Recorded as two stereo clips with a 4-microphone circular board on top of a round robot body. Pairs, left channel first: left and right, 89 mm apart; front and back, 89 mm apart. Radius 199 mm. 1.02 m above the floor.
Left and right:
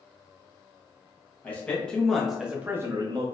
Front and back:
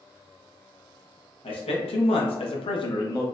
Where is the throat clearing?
No throat clearing in this recording.